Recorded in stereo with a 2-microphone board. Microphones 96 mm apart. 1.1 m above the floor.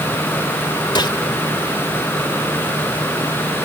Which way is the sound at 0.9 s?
50° left (ahead or behind).